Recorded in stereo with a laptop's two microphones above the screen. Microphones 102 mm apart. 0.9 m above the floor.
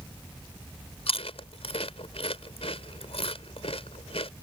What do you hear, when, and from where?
1.1 s chewing: 80° left